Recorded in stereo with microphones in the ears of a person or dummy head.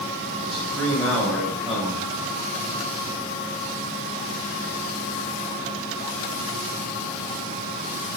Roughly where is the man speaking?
Centre.